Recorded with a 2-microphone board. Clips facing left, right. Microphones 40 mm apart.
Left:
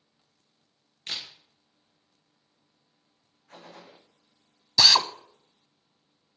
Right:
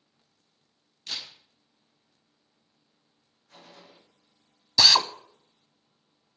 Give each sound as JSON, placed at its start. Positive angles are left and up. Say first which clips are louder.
{"t": 1.1, "sound": "a camera shutter", "louder": "left 1 dB", "side_deg": 40, "distance_m": 3.5}
{"t": 3.5, "sound": "a gunshot", "louder": "left 4 dB", "side_deg": 50, "distance_m": 2.0}
{"t": 4.8, "sound": "a drill", "louder": "even", "side_deg": 0, "distance_m": 0.5}